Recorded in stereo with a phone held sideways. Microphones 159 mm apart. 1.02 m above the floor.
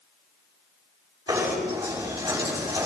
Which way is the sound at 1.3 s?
20° right (ahead or behind).